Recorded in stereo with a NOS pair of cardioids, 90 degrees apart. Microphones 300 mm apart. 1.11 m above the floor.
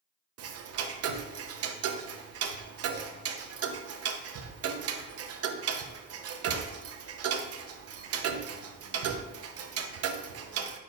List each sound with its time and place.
0.4 s ticking: 55° right, 0.8 m